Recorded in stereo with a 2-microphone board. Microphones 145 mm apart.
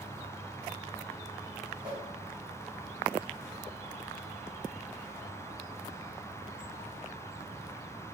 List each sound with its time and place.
1.8 s a whoosh: 35° right (ahead or behind), 2.5 m